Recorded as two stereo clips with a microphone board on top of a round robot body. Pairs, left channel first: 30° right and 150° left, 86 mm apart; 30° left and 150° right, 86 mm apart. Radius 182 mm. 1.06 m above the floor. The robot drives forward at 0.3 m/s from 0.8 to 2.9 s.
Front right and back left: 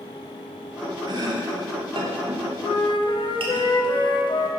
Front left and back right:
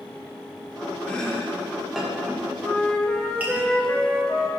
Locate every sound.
1.1 s chopping: 110° left, 0.8 m; by 3.6 s 135° left, 1.2 m
2.6 s a flute: 45° right, 0.8 m; by 4.5 s 50° right, 0.7 m